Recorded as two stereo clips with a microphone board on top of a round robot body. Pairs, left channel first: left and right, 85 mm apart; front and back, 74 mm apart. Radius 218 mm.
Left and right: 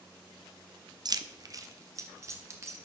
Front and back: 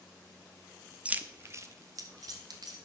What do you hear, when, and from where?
1.1 s keys jangling: 110° right, 0.8 m; by 2.8 s 150° right, 2 m